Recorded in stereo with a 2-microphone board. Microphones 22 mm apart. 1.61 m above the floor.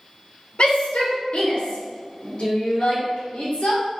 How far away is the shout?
About 1.6 m.